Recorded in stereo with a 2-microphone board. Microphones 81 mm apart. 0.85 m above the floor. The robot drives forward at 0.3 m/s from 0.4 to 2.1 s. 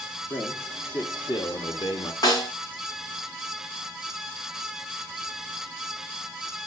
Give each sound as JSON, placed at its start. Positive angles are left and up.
{"t": 0.3, "sound": "a man speaking", "side_deg": 45, "distance_m": 1.2}
{"t": 2.2, "sound": "a snare drum", "side_deg": 55, "distance_m": 2.0}